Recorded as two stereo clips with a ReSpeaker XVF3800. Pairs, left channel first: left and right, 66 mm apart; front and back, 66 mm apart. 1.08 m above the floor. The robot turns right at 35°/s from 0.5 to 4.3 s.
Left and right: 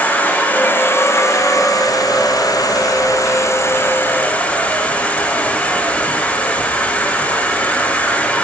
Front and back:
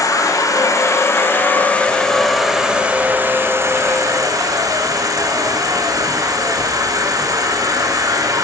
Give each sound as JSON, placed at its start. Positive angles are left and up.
{"t": 0.0, "sound": "an insect", "azimuth_deg": 20, "distance_m": 9.0}